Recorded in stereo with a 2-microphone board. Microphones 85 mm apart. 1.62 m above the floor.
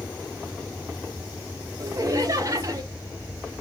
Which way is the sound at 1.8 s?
45° right (ahead or behind).